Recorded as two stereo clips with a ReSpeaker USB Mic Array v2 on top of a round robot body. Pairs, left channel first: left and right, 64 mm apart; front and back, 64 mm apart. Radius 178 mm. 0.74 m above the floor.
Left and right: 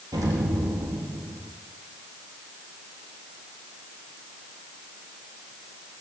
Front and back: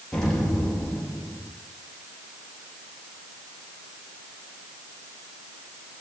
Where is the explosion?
80° right, 3 m.